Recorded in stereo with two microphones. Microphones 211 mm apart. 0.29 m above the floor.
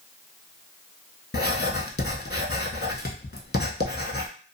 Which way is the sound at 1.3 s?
50° left (ahead or behind).